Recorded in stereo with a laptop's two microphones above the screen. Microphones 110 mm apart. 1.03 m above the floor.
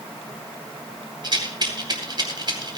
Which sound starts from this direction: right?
A rattle, at 1.2 s.